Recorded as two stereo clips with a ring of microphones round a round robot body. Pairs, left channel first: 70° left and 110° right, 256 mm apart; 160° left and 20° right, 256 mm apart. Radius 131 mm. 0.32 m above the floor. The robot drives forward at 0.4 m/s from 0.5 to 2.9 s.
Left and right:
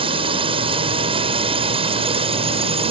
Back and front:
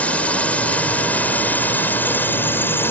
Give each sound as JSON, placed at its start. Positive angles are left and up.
{"t": 0.0, "sound": "a drone", "azimuth_deg": -125}